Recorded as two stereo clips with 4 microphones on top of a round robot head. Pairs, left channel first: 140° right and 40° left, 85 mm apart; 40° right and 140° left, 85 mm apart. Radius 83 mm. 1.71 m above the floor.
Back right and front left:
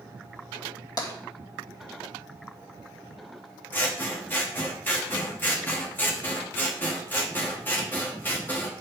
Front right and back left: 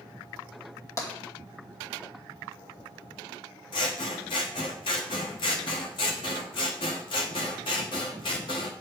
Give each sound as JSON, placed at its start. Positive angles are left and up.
{"t": 1.0, "sound": "tapping", "azimuth_deg": -95, "distance_m": 2.5}
{"t": 3.7, "sound": "scissors", "azimuth_deg": -70, "distance_m": 0.9}